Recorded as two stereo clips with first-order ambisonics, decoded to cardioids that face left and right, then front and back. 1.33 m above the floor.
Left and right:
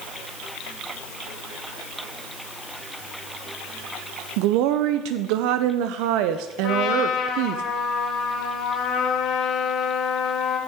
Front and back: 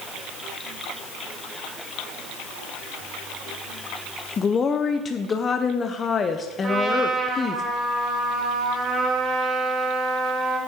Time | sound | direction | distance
4.4 | a woman speaking | 70° right | 0.5 m
6.6 | a trumpet | 120° left | 1.6 m